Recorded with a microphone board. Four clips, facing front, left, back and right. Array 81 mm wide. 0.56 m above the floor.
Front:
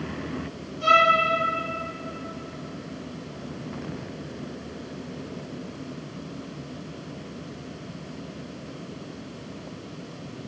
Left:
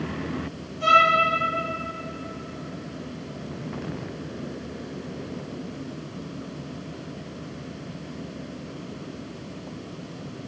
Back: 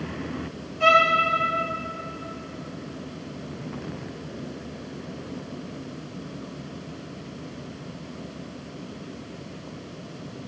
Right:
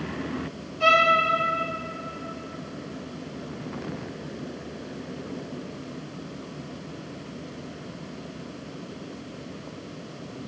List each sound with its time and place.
0.8 s a violin: 150° right, 4 m